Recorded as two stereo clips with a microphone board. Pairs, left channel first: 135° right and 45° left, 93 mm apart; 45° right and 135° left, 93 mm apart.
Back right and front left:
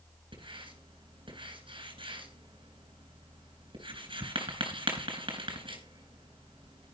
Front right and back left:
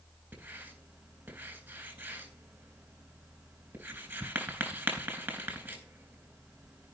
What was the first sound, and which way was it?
Writing, 65° left.